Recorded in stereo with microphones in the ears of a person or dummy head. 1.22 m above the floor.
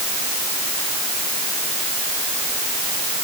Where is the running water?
No running water in this recording.